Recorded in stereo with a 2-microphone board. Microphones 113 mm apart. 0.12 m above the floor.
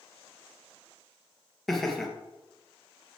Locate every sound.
1.7 s laughter: 5° left (ahead or behind), 2.5 m